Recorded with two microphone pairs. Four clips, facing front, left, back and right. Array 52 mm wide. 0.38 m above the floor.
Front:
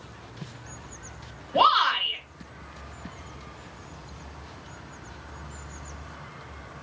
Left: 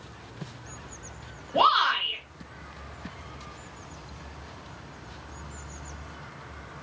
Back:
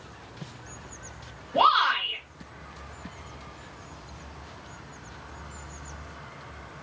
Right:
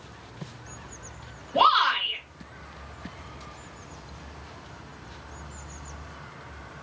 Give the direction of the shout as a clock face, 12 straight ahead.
11 o'clock.